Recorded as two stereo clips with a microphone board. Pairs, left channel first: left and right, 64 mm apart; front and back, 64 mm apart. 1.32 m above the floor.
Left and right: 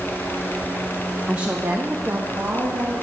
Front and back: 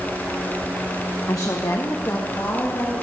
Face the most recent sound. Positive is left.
turn(degrees=-50)